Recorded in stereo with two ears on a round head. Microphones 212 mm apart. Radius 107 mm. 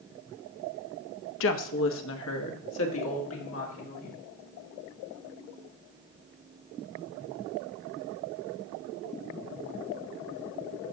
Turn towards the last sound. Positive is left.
turn(degrees=55)  # may be behind; listen again after turning